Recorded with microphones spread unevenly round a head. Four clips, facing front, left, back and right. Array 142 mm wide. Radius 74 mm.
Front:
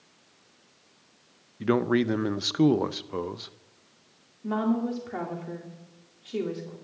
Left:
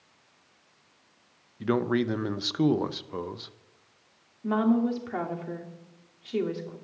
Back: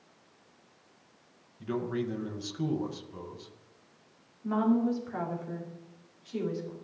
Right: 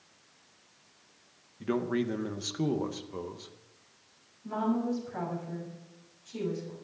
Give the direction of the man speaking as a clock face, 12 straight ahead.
11 o'clock.